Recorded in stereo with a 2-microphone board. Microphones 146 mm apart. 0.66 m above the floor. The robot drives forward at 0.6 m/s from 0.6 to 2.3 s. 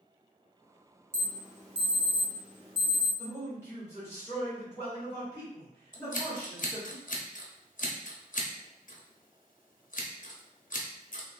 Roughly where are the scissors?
Left.